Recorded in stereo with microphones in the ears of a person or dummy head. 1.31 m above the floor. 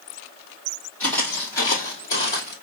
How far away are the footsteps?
About 2.5 m.